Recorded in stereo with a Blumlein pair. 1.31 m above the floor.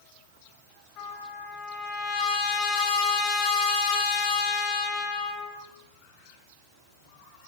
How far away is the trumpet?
About 1.0 m.